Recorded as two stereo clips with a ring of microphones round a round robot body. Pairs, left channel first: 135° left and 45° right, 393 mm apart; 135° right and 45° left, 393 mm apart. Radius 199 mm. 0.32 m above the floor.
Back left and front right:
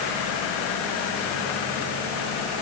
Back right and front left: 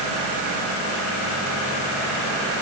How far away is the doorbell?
I don't hear a doorbell.